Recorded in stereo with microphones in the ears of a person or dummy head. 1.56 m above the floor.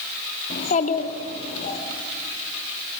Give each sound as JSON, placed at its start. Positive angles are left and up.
{"t": 0.5, "sound": "a child speaking", "side_deg": 45, "distance_m": 1.9}